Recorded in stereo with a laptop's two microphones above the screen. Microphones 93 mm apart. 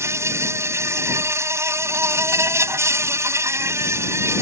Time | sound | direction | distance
0.0 | an insect | 30° right (ahead or behind) | ?